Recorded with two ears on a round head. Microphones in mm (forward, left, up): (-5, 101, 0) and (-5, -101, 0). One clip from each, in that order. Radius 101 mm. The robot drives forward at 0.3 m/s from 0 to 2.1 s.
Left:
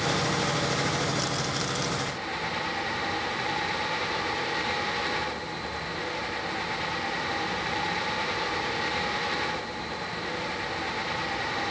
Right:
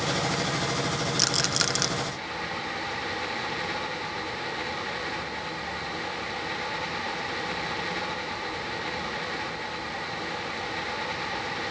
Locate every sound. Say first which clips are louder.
1.2 s a rattle: right 4 dB; 60° right (ahead or behind); by 1.9 s 55° right (ahead or behind)